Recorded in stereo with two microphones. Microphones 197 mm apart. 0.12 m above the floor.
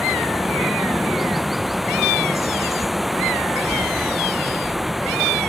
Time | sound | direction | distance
0.0 | running water | centre (ahead or behind) | ?